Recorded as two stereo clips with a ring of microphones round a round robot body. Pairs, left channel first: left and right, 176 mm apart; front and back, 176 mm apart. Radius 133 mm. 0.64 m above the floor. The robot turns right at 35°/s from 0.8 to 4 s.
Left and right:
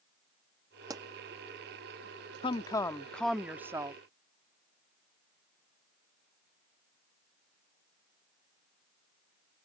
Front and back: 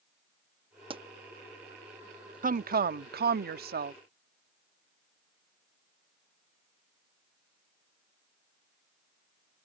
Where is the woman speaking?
150° left; by 4.0 s 155° right.